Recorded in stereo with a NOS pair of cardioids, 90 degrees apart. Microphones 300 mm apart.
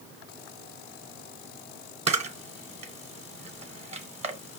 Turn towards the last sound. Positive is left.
turn(degrees=-20)